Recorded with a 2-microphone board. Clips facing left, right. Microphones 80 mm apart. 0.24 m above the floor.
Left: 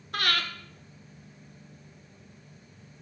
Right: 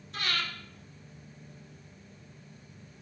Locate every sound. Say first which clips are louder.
0.1 s breathing: left 5 dB; 65° left (ahead or behind), 1.0 m